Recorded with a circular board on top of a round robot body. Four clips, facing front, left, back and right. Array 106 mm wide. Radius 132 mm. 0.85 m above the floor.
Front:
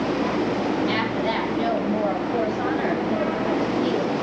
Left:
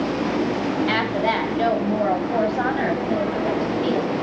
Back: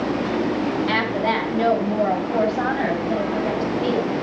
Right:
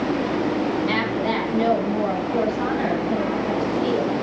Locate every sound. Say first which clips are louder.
0.9 s a woman speaking: left 1 dB, back 2 dB; 125° left, 5.5 m; by 4.1 s 130° left, 7 m